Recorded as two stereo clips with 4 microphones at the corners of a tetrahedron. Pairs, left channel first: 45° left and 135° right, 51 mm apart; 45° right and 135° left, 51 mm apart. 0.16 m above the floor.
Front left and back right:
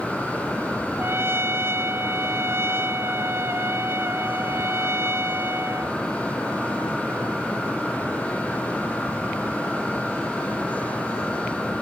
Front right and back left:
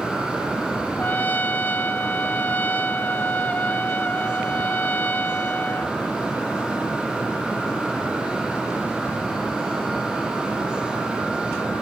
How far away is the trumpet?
About 0.7 m.